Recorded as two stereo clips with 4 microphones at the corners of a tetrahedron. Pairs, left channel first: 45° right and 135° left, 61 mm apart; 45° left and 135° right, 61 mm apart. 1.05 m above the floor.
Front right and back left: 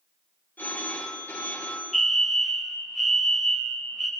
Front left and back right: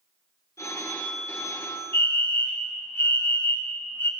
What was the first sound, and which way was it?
A phone ringing, 15° left.